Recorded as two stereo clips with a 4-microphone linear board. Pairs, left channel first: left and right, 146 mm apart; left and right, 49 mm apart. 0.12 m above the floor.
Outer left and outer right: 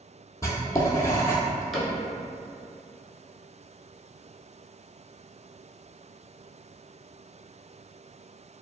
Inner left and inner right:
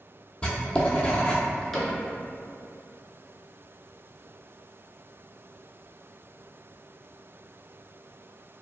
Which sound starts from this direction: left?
Writing, at 0.4 s.